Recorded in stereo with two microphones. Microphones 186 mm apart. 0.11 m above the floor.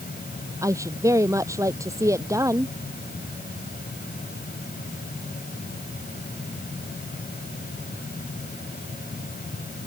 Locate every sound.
0.6 s a woman speaking: 15° right (ahead or behind)